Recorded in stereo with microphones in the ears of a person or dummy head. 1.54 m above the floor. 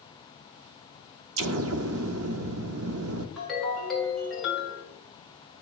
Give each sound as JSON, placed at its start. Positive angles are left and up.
{"t": 1.4, "sound": "an explosion", "side_deg": -65, "distance_m": 0.5}
{"t": 3.4, "sound": "a ringtone", "side_deg": 0, "distance_m": 2.5}